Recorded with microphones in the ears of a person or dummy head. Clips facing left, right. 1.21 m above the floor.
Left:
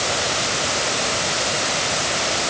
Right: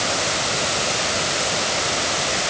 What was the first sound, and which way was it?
Only background noise.